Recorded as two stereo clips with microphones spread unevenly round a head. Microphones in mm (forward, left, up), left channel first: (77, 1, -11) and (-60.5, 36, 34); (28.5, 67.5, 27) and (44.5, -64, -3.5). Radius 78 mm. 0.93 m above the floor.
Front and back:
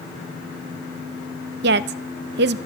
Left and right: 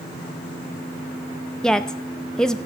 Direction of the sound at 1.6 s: 170° right.